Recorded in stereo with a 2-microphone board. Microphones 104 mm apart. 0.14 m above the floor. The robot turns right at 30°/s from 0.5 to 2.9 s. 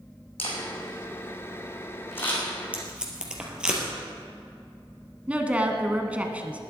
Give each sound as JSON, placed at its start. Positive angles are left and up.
{"t": 0.4, "sound": "a camera shutter", "side_deg": 70, "distance_m": 4.5}
{"t": 2.7, "sound": "tape being pulled", "side_deg": -15, "distance_m": 2.5}
{"t": 5.3, "sound": "a woman speaking", "side_deg": -15, "distance_m": 1.2}